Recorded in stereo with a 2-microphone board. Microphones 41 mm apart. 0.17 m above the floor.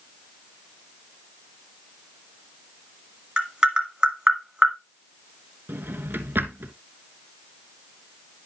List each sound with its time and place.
3.4 s tapping: 20° right (ahead or behind), 1.7 m
5.7 s a drawer: 60° right (ahead or behind), 0.9 m